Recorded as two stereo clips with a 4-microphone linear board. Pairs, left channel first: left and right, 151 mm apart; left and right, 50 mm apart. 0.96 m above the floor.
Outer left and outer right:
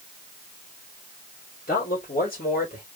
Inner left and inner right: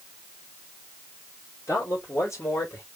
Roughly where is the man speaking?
Left.